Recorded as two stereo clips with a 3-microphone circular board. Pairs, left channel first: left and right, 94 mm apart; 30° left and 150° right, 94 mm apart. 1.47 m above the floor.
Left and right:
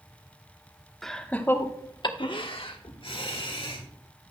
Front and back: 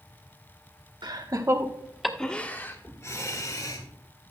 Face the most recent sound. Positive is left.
turn(degrees=75)